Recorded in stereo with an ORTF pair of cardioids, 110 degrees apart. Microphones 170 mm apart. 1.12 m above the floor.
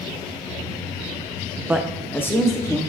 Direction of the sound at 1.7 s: 10° right.